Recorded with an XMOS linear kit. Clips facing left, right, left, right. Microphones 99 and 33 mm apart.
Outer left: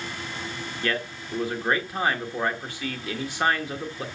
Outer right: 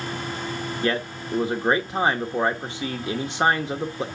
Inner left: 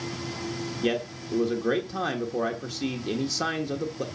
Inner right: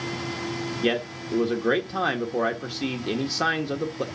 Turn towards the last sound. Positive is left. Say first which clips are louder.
# outer right 3 dB, inner right 2 dB
turn(degrees=-25)  # may be behind; listen again after turning